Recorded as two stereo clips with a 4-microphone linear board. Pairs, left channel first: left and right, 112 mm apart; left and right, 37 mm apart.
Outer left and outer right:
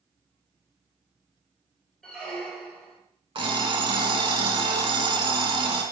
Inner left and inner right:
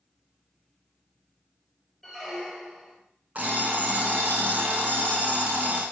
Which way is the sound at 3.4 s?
50° right (ahead or behind).